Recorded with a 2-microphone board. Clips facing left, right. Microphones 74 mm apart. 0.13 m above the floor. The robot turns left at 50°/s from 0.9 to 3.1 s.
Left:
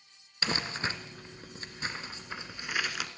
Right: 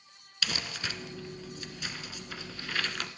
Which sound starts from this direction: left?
Crumpling, at 0.4 s.